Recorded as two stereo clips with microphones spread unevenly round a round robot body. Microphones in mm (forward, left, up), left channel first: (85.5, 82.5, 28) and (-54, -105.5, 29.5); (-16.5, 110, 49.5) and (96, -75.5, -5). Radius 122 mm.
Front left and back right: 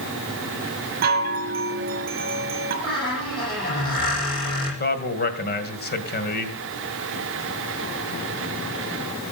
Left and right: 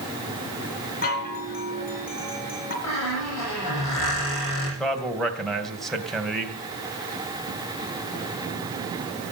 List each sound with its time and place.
1.0 s a chime: straight behind, 2.5 m
2.8 s a squeak: 125° left, 9.5 m
4.8 s a man speaking: 20° left, 2 m